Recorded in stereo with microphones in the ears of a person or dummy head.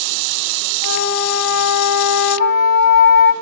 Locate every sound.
0.8 s a flute: 85° left, 6 m